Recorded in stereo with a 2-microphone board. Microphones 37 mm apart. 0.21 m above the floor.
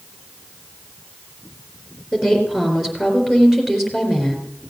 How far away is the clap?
I don't hear a clap.